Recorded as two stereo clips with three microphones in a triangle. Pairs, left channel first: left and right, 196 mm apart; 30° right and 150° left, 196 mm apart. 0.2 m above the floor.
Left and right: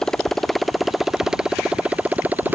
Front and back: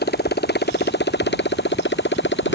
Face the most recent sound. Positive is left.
turn(degrees=-10)